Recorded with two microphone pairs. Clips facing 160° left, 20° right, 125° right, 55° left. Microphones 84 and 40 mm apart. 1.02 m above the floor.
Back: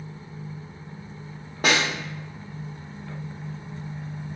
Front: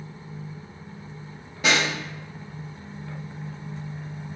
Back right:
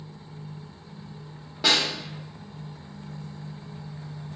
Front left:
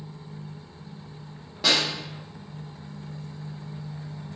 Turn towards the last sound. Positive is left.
turn(degrees=155)